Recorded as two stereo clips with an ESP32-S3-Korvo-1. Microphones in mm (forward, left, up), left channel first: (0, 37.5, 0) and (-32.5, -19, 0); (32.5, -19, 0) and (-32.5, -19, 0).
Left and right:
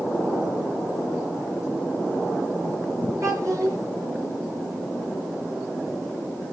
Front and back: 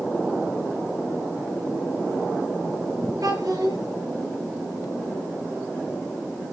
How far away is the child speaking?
About 5 m.